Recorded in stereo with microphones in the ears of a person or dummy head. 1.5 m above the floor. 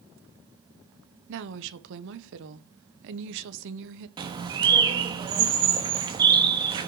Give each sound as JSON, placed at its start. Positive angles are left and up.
{"t": 1.3, "sound": "a woman speaking", "side_deg": -70, "distance_m": 1.0}
{"t": 4.2, "sound": "a bird", "side_deg": -25, "distance_m": 1.3}